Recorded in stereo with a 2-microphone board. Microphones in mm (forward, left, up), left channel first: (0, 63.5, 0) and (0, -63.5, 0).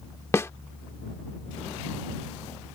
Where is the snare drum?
20° left (ahead or behind).